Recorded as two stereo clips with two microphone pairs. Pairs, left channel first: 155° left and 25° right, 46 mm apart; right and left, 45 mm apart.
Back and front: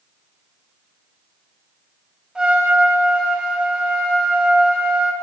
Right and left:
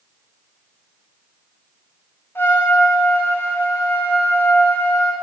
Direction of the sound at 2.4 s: 95° right.